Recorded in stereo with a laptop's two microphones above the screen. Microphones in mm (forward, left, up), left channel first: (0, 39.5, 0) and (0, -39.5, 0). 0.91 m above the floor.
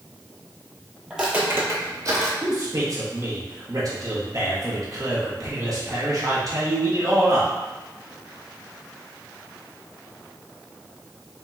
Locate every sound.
1.1 s footsteps: 5° right (ahead or behind), 1.0 m; by 2.3 s 45° right (ahead or behind), 1.7 m
2.4 s a man speaking: 50° right (ahead or behind), 1.2 m